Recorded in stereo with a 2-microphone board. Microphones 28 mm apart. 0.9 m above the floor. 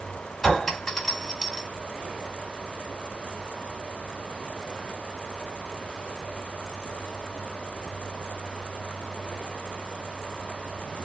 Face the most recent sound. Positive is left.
turn(degrees=15)  # may be behind; listen again after turning